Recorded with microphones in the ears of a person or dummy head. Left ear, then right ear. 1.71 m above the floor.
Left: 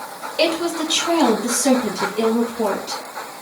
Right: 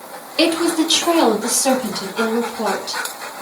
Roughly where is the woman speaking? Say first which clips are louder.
Right 3 dB; right.